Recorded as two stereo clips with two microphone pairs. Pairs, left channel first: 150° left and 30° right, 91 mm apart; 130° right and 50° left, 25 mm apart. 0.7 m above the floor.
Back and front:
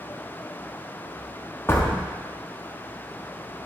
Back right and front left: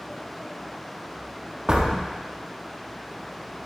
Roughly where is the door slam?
Left.